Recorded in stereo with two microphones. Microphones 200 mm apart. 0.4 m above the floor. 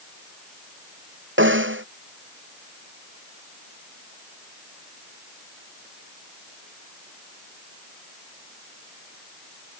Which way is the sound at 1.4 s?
75° right (ahead or behind).